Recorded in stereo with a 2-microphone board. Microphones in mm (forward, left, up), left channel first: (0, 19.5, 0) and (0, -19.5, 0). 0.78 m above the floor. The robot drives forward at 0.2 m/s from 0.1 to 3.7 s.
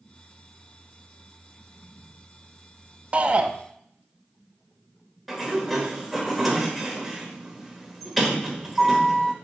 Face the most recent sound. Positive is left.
turn(degrees=0)  # may be behind; listen again after turning